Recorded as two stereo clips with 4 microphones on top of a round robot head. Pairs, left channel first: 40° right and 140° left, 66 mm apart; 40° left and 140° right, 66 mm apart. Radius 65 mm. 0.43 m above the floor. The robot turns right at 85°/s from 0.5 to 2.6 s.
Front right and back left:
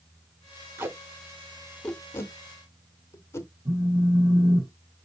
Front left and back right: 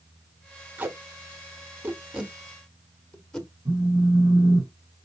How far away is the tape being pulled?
About 1.0 m.